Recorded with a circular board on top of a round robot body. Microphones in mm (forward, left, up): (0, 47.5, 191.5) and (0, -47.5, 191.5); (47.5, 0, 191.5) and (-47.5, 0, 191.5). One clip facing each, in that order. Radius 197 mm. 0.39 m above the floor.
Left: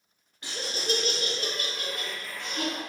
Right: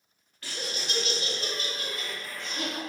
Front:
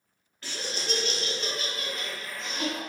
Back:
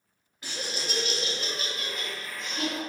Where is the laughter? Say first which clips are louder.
Left 4 dB, front 1 dB; 125° left, 0.9 m; by 2.8 s 90° left, 2 m.